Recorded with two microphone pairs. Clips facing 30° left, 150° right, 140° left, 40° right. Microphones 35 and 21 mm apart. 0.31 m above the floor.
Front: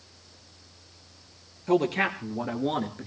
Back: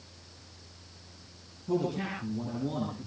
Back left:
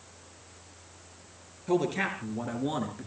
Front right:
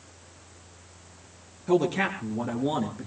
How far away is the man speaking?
About 5 m.